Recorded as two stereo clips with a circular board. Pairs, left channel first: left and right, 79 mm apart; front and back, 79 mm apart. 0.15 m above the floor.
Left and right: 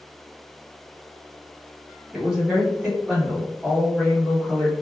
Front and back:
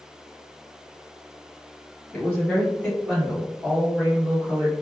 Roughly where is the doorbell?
I don't hear a doorbell.